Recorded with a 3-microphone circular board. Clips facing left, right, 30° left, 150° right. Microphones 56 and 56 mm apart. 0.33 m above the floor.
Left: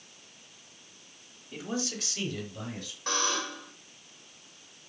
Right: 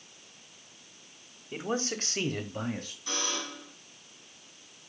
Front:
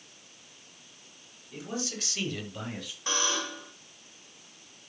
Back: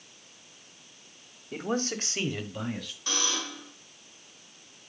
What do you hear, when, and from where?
1.5 s a man speaking: 145° right, 1.4 m; by 3.0 s 50° right, 1.5 m
3.1 s a buzzer: 90° left, 2.5 m